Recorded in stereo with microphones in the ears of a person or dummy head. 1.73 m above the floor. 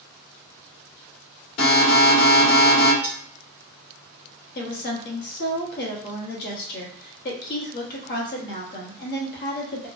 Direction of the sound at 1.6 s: 80° left.